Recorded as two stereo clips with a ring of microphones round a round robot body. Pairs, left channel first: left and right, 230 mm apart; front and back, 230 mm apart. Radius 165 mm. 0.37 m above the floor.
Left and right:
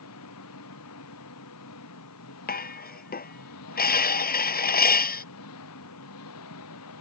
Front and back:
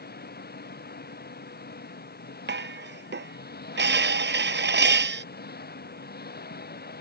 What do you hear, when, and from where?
0.0 s an engine running: 45° left
2.5 s dishes clattering: 140° left